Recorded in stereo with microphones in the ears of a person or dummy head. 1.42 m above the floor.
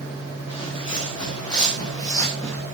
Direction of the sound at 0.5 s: 25° left (ahead or behind).